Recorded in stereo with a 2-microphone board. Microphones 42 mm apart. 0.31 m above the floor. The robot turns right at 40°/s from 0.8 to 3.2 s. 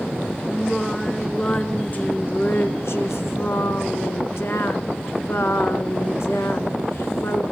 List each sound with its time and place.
0.5 s singing: straight ahead, 1.7 m; by 7.4 s 95° left, 1.7 m